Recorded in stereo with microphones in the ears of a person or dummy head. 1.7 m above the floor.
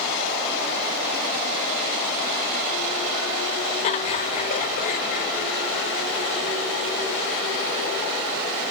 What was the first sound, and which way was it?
Laughter, 35° left (ahead or behind).